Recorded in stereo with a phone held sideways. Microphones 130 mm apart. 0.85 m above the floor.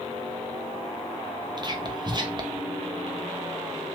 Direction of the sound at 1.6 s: 35° right (ahead or behind).